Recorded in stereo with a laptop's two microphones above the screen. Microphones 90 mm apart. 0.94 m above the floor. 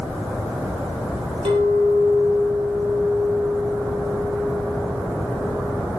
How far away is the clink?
About 2 m.